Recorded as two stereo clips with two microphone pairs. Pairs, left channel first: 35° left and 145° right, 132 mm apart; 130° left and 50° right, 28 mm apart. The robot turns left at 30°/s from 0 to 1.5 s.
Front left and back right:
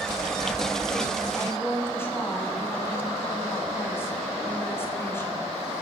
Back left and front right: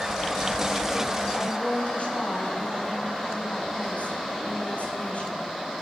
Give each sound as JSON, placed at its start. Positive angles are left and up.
{"t": 1.4, "sound": "a woman speaking", "azimuth_deg": 110, "distance_m": 5.5}